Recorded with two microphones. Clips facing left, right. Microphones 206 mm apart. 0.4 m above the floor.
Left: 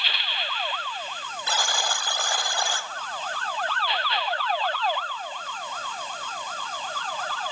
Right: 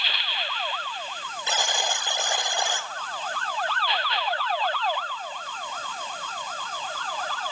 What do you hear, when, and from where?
1.5 s a buzzer: 20° right (ahead or behind), 1.6 m